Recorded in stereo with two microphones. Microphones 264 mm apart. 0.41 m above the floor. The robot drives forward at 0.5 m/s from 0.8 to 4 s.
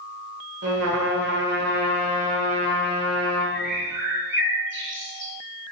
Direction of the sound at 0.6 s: 65° right (ahead or behind).